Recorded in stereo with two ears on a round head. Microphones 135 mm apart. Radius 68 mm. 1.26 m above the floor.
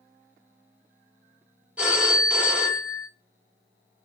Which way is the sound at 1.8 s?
10° right (ahead or behind).